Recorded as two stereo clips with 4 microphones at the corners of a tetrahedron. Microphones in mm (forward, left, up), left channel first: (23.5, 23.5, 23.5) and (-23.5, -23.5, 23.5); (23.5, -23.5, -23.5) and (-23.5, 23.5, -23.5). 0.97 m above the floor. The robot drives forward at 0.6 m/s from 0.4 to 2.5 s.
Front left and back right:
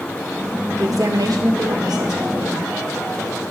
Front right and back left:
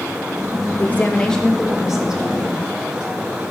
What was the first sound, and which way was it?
A woman speaking, 105° right.